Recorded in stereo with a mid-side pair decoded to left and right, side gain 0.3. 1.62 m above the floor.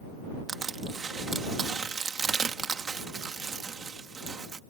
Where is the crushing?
60° right.